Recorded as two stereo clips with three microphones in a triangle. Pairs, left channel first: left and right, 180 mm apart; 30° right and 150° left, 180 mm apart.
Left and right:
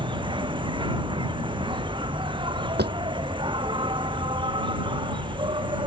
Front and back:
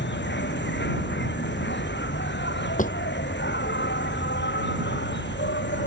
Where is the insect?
25° right.